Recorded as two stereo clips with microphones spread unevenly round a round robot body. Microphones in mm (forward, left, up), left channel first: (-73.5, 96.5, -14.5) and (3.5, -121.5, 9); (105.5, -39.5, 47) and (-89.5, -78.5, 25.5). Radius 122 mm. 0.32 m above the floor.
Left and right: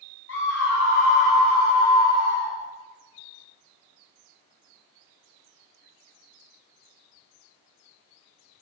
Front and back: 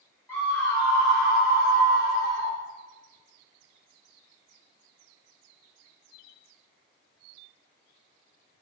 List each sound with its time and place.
0.3 s a scream: 95° left, 1.6 m; by 2.5 s 115° left, 2.5 m